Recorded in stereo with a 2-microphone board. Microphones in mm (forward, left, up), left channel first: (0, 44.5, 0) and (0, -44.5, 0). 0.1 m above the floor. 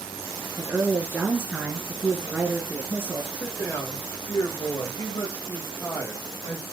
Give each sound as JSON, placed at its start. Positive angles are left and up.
{"t": 0.6, "sound": "a woman speaking", "side_deg": -20, "distance_m": 1.3}
{"t": 3.3, "sound": "a man speaking", "side_deg": 30, "distance_m": 4.5}